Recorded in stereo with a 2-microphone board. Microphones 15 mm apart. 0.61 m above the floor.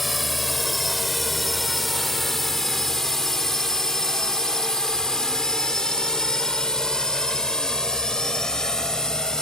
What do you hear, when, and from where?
0.0 s a drone: 5° left (ahead or behind); by 9.4 s 50° left (ahead or behind)